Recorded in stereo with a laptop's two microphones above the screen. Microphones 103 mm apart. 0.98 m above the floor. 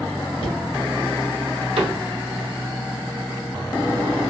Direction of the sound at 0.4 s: 50° left (ahead or behind).